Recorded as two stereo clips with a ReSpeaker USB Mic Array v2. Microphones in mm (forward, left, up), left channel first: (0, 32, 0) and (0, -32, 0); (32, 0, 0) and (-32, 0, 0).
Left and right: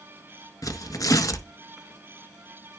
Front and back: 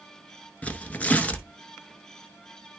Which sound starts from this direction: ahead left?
Tearing paper, at 0.6 s.